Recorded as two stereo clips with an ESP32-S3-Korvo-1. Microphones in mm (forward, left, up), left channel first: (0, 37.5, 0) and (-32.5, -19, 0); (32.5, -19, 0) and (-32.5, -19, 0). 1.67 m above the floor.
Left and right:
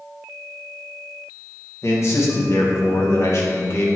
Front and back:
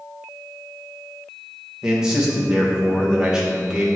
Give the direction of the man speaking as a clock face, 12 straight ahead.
9 o'clock.